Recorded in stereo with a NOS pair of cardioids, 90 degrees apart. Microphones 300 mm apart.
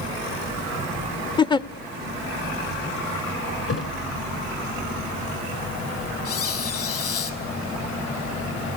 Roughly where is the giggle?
Ahead.